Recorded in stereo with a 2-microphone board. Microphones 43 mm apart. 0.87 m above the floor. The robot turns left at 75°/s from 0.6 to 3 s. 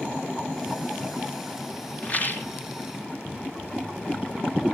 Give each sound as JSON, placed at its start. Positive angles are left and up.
{"t": 2.0, "sound": "a rattle", "azimuth_deg": 150, "distance_m": 1.5}